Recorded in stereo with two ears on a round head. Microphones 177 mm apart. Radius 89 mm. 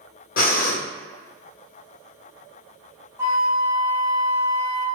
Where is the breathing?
45° left (ahead or behind), 0.7 m.